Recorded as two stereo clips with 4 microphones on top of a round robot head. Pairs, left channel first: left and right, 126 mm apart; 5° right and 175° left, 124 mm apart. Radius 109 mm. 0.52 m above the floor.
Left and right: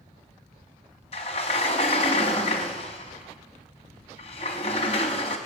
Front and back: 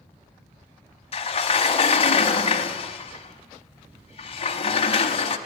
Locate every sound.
1.1 s a sliding door: 35° left, 0.7 m